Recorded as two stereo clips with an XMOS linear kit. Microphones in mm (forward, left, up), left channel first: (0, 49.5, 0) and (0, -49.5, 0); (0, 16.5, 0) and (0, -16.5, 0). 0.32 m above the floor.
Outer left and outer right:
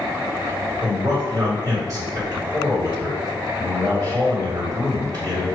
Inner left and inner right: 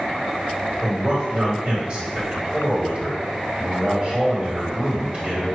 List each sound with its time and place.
0.8 s a man speaking: 40° right (ahead or behind), 1.9 m